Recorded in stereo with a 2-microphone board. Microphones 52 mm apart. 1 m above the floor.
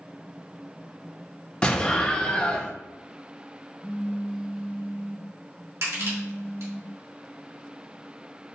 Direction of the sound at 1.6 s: 20° left (ahead or behind).